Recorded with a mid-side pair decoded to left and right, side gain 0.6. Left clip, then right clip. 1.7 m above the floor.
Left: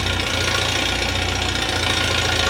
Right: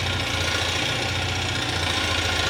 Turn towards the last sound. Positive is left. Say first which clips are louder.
# left 4 dB
turn(degrees=35)